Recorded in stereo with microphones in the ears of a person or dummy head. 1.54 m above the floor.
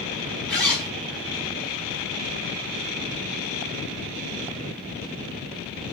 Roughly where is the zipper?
Centre.